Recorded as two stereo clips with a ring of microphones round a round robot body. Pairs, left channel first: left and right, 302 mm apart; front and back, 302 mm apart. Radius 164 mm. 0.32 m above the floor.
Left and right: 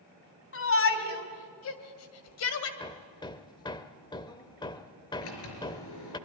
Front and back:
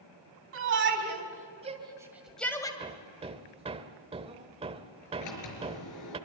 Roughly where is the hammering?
Behind left.